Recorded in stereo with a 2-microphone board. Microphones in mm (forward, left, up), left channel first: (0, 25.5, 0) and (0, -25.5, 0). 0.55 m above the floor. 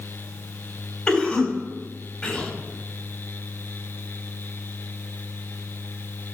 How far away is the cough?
About 3.5 m.